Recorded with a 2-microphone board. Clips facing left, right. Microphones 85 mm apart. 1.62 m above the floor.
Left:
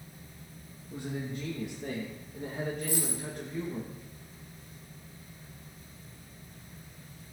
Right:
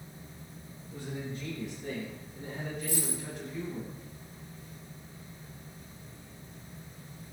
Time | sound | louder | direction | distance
0.9 | a man speaking | left 2 dB | 80° left | 2.5 m
2.8 | a dropped coin | left 2 dB | 55° left (ahead or behind) | 3 m